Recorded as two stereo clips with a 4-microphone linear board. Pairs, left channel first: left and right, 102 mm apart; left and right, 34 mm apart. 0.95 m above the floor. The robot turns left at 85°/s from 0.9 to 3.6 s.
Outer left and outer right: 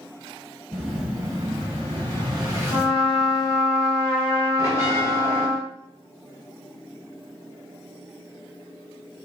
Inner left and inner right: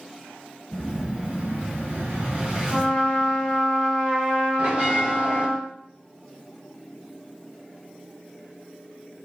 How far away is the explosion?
About 1.6 m.